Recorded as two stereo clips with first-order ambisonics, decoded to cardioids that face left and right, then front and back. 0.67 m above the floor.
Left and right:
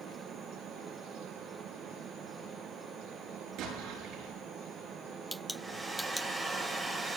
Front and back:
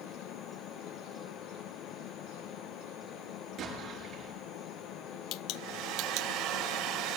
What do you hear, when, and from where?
3.6 s an explosion: 120° right, 6.5 m
5.5 s a hair dryer: 165° right, 3 m